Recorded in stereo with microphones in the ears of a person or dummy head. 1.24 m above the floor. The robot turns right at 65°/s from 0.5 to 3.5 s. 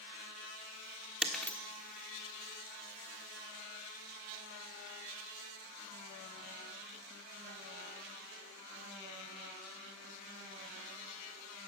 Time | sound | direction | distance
1.2 | breaking glass | 5° right (ahead or behind) | 1.4 m